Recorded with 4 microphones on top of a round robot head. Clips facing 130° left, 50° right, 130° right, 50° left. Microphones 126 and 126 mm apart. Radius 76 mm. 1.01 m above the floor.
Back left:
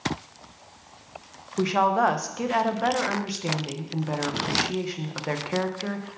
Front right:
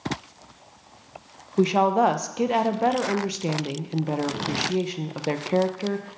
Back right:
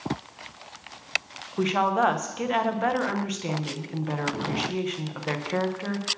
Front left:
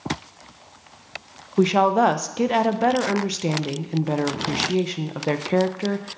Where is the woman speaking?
10° left, 0.7 m.